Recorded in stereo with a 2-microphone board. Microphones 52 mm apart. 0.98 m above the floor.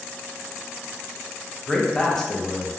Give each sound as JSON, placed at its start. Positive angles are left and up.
{"t": 1.7, "sound": "a man speaking", "side_deg": 10, "distance_m": 0.5}